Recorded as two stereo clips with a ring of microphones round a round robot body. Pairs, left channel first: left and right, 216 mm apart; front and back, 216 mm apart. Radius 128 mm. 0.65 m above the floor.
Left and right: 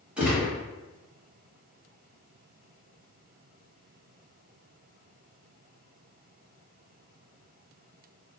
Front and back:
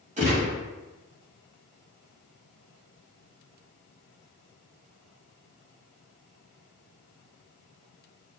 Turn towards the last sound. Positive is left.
turn(degrees=-170)